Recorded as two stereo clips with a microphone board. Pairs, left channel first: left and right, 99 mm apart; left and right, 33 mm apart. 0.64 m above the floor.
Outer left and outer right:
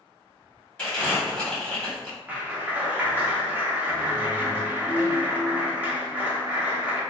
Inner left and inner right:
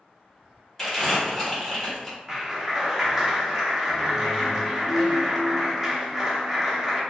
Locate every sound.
0.8 s crumpling: 10° left (ahead or behind), 1.2 m
2.3 s a clap: 15° right (ahead or behind), 0.6 m